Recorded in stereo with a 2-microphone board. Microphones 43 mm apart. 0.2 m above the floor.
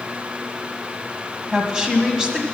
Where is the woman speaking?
15° right (ahead or behind), 1.2 m.